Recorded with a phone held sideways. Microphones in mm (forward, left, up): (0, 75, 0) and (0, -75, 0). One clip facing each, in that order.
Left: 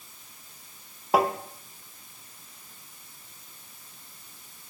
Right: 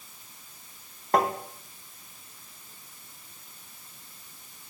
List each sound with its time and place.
1.1 s tapping: 5° left (ahead or behind), 0.7 m